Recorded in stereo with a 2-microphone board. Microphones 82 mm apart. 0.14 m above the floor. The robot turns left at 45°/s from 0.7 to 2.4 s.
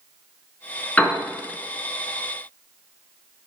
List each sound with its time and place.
1.0 s a piano: 20° left (ahead or behind), 1.1 m; by 1.2 s 25° left (ahead or behind), 1.1 m